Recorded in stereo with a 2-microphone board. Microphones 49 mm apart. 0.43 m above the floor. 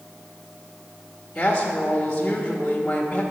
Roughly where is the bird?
I don't hear a bird.